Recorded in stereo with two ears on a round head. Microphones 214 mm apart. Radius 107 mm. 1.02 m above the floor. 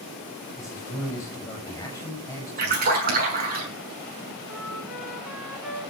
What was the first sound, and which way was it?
A man speaking, 15° left (ahead or behind).